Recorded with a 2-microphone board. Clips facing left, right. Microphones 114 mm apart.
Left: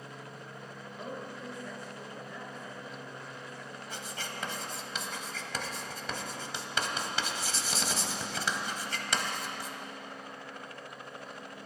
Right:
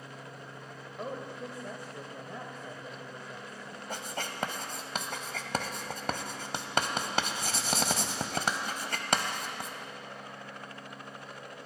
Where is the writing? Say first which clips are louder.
Right 5 dB; 50° right (ahead or behind), 0.9 m.